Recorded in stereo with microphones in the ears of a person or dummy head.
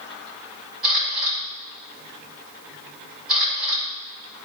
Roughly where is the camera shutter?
Right.